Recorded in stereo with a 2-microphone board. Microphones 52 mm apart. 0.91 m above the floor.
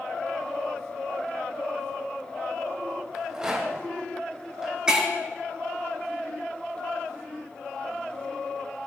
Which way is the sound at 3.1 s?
15° right (ahead or behind).